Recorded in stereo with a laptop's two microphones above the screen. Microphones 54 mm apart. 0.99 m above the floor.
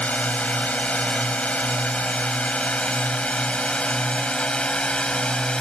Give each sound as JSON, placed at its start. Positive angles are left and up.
{"t": 0.0, "sound": "a drone", "side_deg": 25}